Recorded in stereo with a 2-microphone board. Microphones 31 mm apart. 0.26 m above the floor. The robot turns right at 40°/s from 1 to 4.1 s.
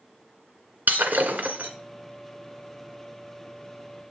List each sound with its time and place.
0.9 s breaking glass: 70° right (ahead or behind), 1.8 m; by 1.7 s 55° right (ahead or behind), 1.8 m